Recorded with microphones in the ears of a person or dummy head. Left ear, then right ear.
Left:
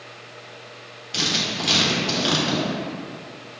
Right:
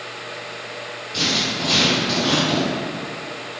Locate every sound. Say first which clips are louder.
1.1 s writing: right 2 dB; 55° left (ahead or behind), 1.3 m